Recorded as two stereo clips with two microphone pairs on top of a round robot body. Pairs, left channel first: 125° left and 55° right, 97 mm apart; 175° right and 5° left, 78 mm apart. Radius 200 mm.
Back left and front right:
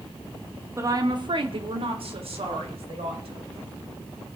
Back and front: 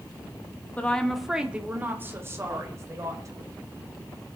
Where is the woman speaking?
110° right, 1.7 m; by 3.5 s 40° right, 4.5 m.